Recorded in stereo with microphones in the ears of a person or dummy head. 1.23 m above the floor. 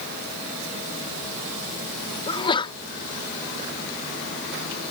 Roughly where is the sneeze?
Left.